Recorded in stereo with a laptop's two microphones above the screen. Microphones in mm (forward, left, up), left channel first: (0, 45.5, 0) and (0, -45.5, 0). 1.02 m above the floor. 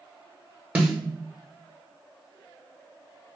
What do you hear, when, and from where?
0.8 s a snare drum: 10° right (ahead or behind), 1.1 m